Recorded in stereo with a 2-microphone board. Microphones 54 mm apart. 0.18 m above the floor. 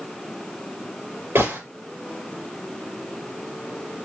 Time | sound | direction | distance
1.4 | a gunshot | 60° right (ahead or behind) | 3 m